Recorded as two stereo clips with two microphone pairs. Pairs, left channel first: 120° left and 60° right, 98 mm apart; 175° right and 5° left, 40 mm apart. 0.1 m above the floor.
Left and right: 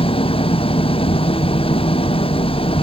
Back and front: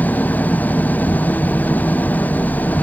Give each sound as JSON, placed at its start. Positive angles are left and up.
{"t": 0.0, "sound": "an engine running", "azimuth_deg": 140}